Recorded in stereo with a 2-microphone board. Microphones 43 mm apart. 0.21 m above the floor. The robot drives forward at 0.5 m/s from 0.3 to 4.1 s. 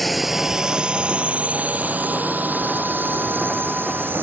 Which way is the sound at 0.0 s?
5° left (ahead or behind).